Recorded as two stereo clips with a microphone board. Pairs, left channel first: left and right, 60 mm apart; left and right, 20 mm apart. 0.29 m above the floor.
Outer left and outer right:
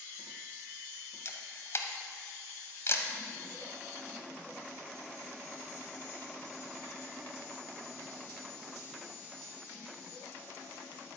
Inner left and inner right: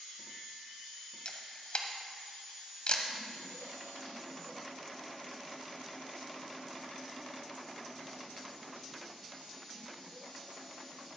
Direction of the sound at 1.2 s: 50° left (ahead or behind).